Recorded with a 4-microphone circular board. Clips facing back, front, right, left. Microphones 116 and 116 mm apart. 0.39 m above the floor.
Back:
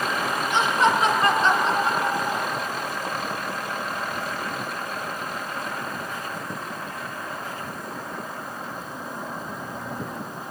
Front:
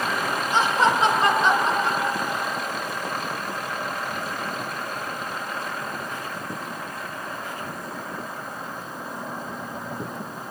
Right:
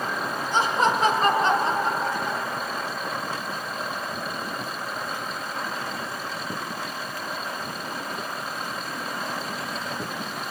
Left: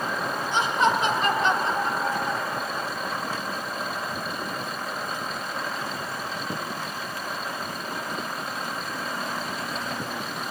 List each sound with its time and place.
0.5 s laughter: 45° right, 2.5 m; by 2.9 s straight behind, 1.6 m